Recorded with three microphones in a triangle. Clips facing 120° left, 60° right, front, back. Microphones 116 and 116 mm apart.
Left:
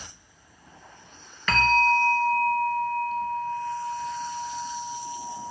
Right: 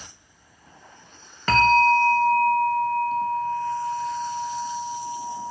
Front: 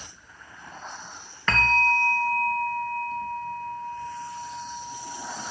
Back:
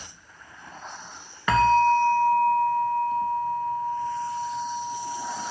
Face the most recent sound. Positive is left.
turn(degrees=-105)